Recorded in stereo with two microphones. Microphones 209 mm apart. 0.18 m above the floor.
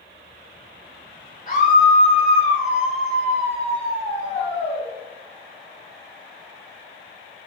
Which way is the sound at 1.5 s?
40° left (ahead or behind).